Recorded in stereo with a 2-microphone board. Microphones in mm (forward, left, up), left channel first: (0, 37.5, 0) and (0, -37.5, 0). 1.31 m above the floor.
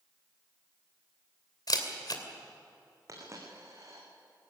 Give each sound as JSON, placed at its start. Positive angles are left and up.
{"t": 1.7, "sound": "a camera shutter", "side_deg": 60, "distance_m": 2.5}
{"t": 3.1, "sound": "a dropped coin", "side_deg": -40, "distance_m": 5.5}